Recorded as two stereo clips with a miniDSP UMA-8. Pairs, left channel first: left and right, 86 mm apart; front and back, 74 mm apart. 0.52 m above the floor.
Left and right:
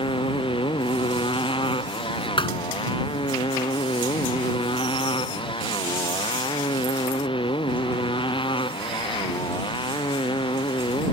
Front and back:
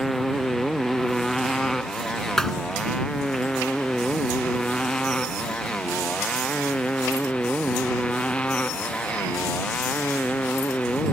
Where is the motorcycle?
90° left; by 11.1 s 75° left.